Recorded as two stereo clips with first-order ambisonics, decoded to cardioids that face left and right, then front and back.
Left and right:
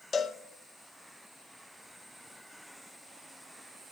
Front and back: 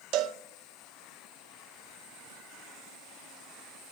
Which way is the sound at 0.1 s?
160° left.